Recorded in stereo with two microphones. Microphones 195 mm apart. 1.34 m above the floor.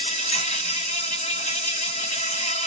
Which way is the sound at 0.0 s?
35° left (ahead or behind).